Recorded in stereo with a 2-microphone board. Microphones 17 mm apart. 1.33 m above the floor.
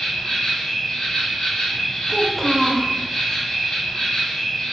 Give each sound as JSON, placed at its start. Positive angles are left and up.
{"t": 0.0, "sound": "an insect", "side_deg": 40, "distance_m": 0.8}
{"t": 2.1, "sound": "a child speaking", "side_deg": 15, "distance_m": 0.7}